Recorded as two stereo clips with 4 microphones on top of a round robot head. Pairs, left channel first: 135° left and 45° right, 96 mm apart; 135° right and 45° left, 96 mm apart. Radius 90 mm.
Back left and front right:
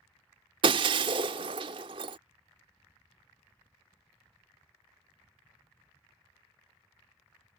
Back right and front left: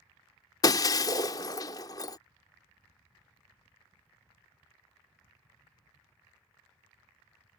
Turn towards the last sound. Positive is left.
turn(degrees=-85)